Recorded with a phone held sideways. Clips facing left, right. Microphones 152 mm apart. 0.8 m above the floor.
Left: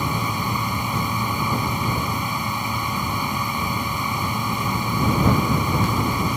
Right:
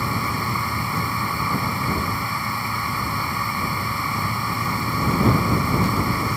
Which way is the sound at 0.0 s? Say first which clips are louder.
Left 1 dB; 20° left (ahead or behind).